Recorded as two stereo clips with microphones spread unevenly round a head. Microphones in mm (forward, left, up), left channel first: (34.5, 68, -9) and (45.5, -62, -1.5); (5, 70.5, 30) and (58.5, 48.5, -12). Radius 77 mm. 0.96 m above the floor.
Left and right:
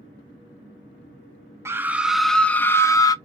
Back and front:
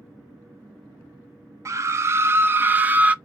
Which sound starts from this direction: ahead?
A scream, at 1.6 s.